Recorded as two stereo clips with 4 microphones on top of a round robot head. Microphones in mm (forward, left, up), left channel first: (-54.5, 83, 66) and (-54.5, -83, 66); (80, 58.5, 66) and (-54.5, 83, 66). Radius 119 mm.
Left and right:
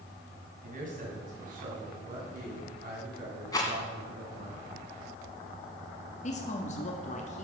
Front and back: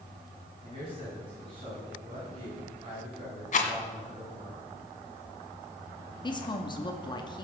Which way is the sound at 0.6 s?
130° right.